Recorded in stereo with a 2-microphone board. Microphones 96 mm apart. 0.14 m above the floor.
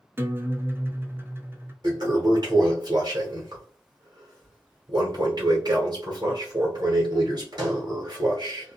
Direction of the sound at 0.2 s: 25° right (ahead or behind).